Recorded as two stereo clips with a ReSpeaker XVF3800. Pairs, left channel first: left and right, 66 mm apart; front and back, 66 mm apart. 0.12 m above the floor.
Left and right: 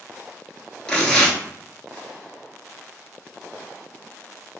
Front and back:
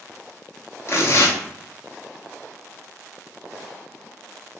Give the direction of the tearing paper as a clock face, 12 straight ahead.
11 o'clock.